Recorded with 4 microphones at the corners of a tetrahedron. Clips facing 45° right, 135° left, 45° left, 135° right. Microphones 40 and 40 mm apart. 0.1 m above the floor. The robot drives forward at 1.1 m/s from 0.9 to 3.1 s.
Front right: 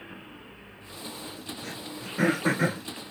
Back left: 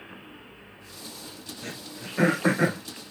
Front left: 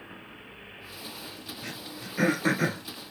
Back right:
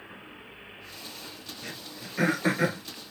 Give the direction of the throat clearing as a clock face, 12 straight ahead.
8 o'clock.